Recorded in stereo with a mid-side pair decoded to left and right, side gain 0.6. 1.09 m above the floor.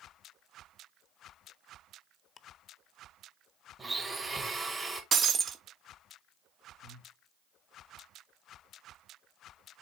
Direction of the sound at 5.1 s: 40° right.